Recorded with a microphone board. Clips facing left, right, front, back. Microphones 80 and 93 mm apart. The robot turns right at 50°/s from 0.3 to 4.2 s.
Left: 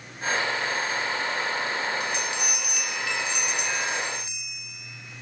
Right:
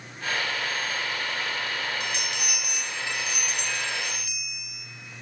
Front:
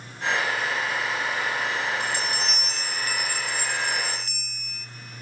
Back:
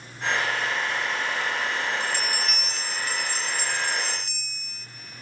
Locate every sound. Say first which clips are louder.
2.0 s a bell: left 3 dB, even; 80° right, 0.6 m; by 4.9 s 30° left, 0.6 m